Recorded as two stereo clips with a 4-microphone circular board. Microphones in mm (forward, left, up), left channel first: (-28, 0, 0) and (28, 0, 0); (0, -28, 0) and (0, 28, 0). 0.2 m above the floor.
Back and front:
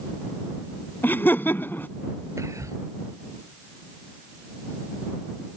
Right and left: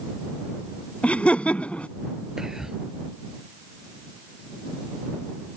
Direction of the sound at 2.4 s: 10° left.